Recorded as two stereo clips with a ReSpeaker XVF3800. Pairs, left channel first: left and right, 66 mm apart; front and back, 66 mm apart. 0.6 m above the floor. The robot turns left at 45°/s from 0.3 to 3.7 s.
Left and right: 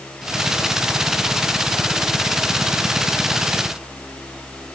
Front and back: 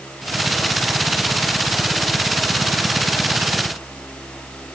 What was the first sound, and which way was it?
Only background noise.